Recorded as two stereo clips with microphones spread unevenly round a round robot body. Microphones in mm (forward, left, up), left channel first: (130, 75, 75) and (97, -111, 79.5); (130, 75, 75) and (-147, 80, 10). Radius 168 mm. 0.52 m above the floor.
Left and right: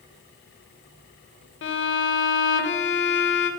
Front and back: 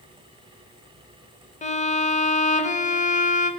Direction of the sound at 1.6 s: 65° left.